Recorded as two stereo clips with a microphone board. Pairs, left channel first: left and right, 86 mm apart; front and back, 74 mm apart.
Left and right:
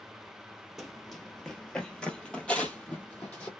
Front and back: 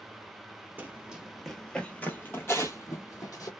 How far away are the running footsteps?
About 0.9 m.